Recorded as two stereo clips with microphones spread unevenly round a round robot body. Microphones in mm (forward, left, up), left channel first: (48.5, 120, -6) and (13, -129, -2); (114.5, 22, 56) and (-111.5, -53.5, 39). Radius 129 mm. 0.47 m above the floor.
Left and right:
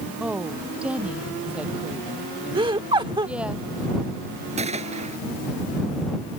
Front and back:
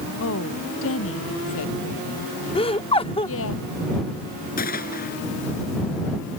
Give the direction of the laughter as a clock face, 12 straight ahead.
1 o'clock.